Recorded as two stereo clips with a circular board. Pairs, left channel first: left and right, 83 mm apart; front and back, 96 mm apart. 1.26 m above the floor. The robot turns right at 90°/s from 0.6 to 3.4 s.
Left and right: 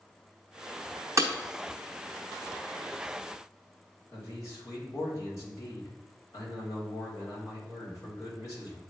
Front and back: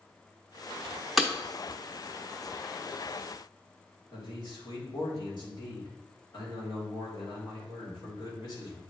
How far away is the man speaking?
About 3.5 m.